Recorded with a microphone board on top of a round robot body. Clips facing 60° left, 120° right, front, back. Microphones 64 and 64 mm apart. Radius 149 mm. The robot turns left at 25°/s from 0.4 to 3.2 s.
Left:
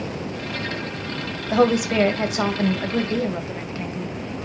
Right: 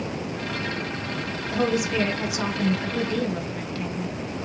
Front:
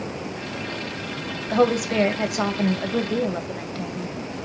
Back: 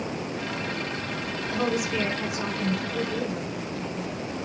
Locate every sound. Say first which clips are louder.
1.5 s a woman speaking: left 6 dB, front 8 dB; 35° left, 2.5 m; by 4.1 s 10° right, 2.5 m